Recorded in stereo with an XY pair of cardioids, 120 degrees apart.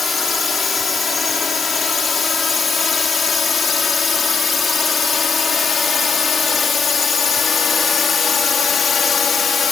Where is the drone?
30° left; by 9.7 s 40° left.